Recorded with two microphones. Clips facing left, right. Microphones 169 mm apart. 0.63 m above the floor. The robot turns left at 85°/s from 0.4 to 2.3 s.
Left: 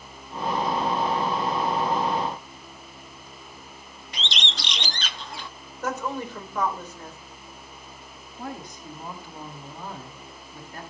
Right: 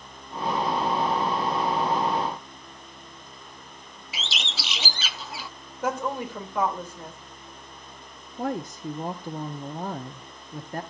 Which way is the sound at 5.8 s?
10° right (ahead or behind).